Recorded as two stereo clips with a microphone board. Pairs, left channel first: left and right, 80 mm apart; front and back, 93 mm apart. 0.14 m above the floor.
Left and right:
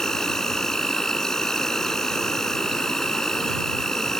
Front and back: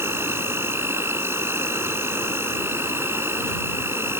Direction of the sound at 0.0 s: 165° left.